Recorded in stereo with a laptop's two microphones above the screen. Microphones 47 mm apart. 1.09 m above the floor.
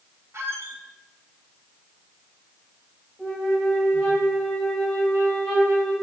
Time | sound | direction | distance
0.3 | a squeak | 65° right (ahead or behind) | 0.9 m
3.2 | a flute | 5° left (ahead or behind) | 2.5 m